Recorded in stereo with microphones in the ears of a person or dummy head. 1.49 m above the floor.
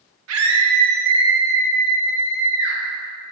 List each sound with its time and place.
0.3 s a scream: 80° right, 1.5 m; by 2.8 s 50° left (ahead or behind), 2.0 m